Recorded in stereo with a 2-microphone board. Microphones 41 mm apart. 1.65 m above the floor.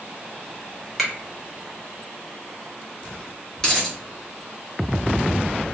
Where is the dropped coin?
20° left (ahead or behind), 1.1 m.